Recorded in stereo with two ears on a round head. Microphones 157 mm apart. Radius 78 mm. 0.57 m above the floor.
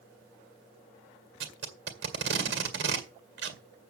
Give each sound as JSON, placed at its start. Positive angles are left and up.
{"t": 1.4, "sound": "tape being pulled", "side_deg": -70, "distance_m": 2.0}